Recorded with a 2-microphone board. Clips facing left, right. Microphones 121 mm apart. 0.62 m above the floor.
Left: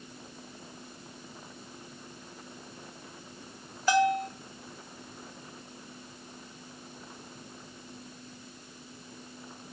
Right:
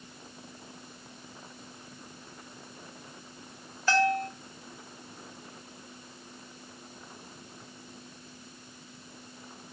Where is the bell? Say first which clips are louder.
Left 1 dB; 15° left (ahead or behind), 0.9 m.